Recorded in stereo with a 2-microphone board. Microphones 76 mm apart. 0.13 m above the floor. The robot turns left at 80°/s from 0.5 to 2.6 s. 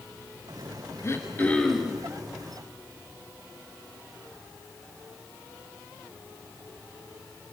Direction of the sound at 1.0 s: 60° left.